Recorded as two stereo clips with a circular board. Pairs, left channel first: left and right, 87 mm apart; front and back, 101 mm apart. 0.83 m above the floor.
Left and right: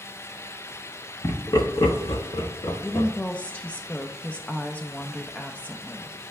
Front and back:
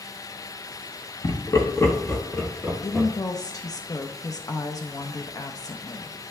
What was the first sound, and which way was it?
Laughter, 40° left.